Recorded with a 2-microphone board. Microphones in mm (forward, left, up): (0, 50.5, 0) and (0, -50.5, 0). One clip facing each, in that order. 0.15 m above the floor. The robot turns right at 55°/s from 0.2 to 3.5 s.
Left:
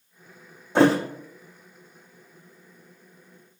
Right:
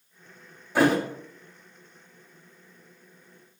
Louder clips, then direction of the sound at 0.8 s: Left 3 dB; 25° left (ahead or behind).